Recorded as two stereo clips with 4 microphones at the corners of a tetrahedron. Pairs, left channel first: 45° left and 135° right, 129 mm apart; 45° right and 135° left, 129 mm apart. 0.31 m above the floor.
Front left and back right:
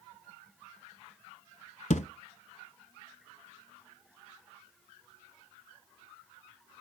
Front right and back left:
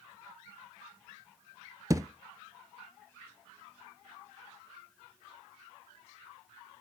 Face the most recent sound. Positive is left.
turn(degrees=70)